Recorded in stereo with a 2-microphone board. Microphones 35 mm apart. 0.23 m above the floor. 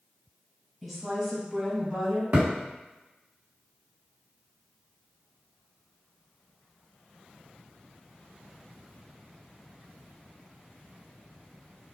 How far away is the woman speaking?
About 1.3 m.